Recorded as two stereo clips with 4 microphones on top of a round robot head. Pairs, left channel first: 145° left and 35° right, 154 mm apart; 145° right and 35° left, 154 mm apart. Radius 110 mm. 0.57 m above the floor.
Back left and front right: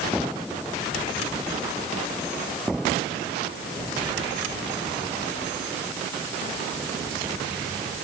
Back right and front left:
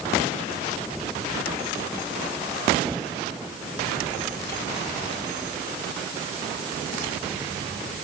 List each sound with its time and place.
Only background noise.